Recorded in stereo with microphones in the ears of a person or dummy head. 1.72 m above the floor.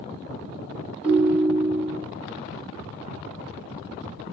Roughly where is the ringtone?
Right.